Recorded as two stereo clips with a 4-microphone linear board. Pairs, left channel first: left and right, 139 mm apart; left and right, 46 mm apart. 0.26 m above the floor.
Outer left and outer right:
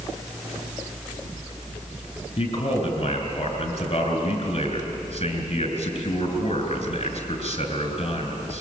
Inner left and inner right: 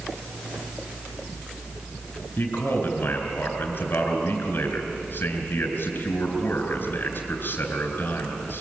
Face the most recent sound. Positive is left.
turn(degrees=45)  # may be behind; listen again after turning